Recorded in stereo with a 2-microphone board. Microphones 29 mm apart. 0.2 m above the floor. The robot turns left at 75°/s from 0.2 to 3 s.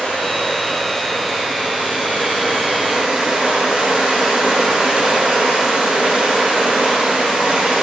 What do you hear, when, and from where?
0.0 s running water: 70° left, 1.3 m; by 7.8 s 140° right, 1.3 m